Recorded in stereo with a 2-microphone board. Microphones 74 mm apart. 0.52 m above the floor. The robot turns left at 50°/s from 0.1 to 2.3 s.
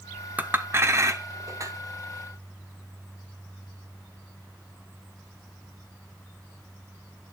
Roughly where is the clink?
Right.